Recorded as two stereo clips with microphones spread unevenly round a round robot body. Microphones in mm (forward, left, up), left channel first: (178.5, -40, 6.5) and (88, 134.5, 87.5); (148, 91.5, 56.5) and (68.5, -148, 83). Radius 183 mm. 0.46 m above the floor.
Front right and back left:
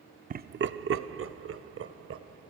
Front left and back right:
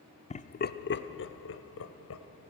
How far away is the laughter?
About 0.8 m.